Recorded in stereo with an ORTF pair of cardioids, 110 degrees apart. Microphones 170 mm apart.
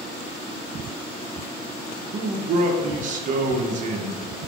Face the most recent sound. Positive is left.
turn(degrees=-50)